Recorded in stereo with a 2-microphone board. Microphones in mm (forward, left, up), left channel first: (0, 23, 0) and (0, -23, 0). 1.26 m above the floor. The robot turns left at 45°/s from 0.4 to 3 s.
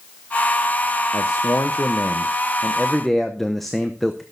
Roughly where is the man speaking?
Left.